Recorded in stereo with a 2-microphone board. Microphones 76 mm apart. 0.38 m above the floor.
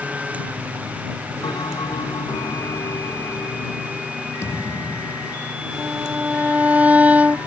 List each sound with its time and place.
1.4 s a bell: 75° left (ahead or behind)
4.4 s a thud: 35° left (ahead or behind)
5.8 s a violin: 20° right (ahead or behind)